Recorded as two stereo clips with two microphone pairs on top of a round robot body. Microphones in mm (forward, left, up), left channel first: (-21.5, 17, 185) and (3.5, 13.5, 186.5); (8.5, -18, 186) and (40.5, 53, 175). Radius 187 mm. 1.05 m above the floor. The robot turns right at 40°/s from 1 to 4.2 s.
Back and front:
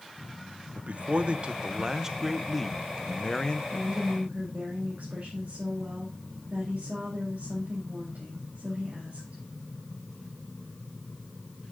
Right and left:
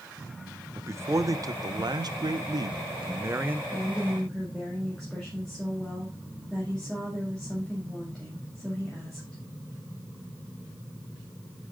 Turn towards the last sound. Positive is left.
turn(degrees=-30)